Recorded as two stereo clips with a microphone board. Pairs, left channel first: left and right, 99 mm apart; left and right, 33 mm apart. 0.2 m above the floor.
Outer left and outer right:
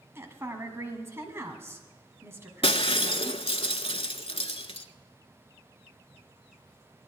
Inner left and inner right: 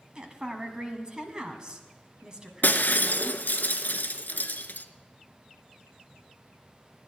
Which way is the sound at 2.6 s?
70° left (ahead or behind).